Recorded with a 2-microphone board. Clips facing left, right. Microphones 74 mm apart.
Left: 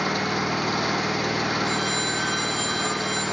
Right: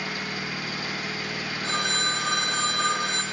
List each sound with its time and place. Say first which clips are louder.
0.0 s an engine running: left 8 dB; 70° left (ahead or behind), 2.5 m
1.6 s a phone ringing: left 2 dB; 65° right (ahead or behind), 2.5 m